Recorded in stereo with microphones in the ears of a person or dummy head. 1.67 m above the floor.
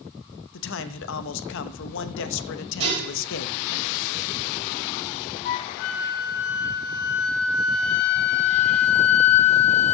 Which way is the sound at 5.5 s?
50° left (ahead or behind).